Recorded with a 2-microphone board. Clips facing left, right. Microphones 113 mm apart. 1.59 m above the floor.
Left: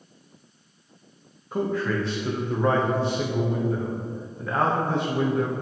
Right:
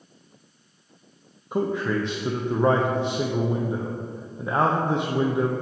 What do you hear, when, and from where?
1.5 s a man speaking: 20° right (ahead or behind), 0.7 m